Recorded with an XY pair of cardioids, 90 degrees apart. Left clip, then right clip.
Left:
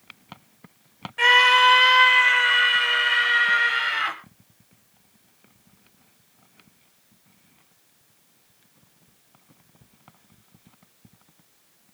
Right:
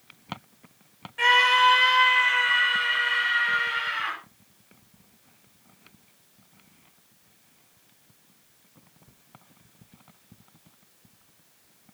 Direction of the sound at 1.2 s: 35° left.